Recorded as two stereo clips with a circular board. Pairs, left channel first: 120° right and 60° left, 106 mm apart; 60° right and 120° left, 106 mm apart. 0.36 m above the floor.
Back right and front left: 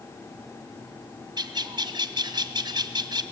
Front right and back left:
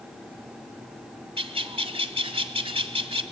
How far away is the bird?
About 1.2 m.